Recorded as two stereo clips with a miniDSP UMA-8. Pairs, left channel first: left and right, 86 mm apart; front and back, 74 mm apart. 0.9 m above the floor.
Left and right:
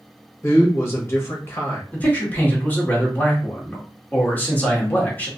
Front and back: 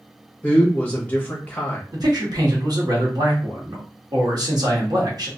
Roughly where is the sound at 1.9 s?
Behind.